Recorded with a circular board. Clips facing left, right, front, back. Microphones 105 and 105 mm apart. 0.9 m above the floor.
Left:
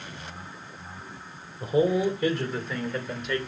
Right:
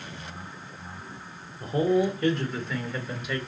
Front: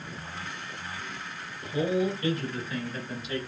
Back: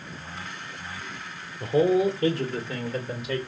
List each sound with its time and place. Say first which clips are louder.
1.6 s a man speaking: left 1 dB, back 6 dB; 170° left, 2.5 m; by 3.4 s 175° right, 3.5 m